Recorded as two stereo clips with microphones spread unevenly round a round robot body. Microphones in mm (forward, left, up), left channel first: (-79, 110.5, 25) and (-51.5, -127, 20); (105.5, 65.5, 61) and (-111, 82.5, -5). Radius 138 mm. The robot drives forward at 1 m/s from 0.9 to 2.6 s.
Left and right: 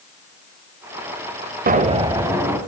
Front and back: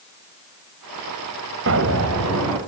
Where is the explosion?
140° right, 0.7 m; by 2.6 s 165° right, 1.5 m.